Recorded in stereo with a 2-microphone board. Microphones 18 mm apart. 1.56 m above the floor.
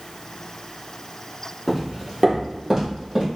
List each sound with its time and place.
1.7 s footsteps: 10° right (ahead or behind), 1.6 m; by 3.2 s 45° right (ahead or behind), 2 m